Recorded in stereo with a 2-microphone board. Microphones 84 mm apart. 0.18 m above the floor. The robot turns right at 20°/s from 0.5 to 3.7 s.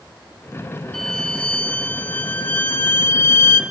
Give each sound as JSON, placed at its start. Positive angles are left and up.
{"t": 0.9, "sound": "a violin", "azimuth_deg": 15, "distance_m": 0.8}